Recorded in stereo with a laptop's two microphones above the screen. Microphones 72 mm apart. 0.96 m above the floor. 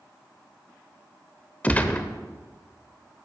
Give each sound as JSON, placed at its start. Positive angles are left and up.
{"t": 1.6, "sound": "a gunshot", "side_deg": 20, "distance_m": 0.7}